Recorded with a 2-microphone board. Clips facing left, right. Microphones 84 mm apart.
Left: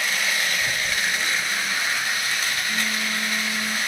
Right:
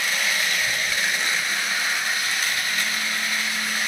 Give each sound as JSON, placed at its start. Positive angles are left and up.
{"t": 0.6, "sound": "a phone buzzing", "side_deg": 75, "distance_m": 4.5}